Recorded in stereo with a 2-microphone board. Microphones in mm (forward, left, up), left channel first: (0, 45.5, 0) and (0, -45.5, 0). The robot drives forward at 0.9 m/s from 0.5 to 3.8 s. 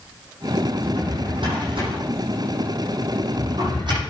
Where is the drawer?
70° right (ahead or behind), 8 m; by 4.0 s 55° right (ahead or behind), 9.5 m.